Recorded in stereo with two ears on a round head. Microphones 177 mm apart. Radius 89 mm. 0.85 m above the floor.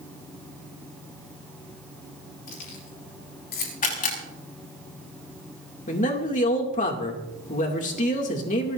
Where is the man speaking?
40° left (ahead or behind), 2.5 m.